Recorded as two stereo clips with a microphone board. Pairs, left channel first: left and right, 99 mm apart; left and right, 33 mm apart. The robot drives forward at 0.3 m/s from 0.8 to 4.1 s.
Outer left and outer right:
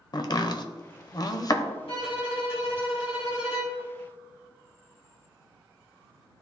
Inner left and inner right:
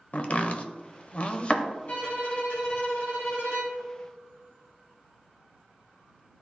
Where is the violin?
65° left (ahead or behind), 1.8 m; by 3.8 s 70° left (ahead or behind), 1.7 m.